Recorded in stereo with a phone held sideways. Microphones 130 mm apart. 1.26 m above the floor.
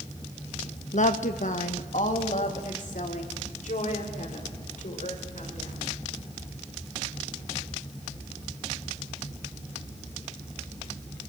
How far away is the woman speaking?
About 1.3 m.